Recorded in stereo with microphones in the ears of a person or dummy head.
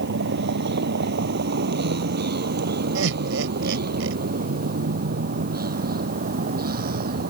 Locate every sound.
0.0 s a vehicle: 65° right (ahead or behind); by 7.3 s 55° right (ahead or behind)
3.0 s laughter: 75° right (ahead or behind)